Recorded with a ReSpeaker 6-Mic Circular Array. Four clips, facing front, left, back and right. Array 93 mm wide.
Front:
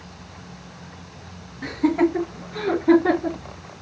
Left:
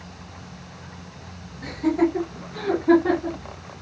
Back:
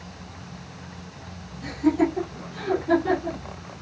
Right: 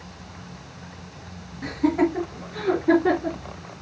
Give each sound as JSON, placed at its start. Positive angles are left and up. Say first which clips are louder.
{"t": 1.6, "sound": "laughter", "louder": "even, front 2 dB", "azimuth_deg": -20, "distance_m": 3.0}